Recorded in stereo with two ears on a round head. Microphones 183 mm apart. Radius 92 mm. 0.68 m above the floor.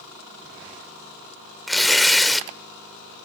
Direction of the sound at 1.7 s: Centre (ahead or behind).